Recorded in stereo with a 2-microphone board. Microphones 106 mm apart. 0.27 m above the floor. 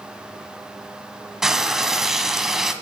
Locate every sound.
1.4 s frying: 5° right (ahead or behind), 1.2 m